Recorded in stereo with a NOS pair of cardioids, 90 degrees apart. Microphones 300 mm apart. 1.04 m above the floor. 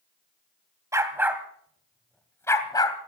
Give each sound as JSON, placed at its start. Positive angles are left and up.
{"t": 0.9, "sound": "a dog barking", "azimuth_deg": -10, "distance_m": 2.5}